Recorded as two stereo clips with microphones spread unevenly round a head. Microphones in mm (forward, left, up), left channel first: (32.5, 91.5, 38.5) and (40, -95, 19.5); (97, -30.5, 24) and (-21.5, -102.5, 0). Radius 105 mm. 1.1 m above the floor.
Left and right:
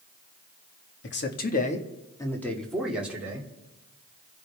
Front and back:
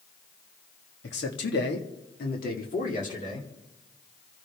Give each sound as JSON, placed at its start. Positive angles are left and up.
{"t": 1.0, "sound": "a man speaking", "azimuth_deg": 65, "distance_m": 2.0}